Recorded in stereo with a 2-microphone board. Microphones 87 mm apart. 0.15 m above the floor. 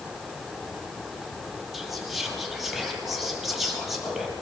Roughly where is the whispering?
Centre.